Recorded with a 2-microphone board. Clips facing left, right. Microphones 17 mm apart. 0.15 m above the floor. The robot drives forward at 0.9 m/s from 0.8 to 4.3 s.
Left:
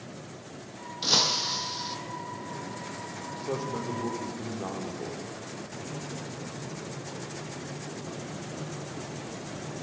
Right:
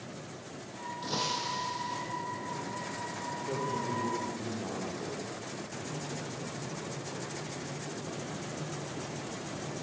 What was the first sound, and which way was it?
Breaking glass, 65° left (ahead or behind).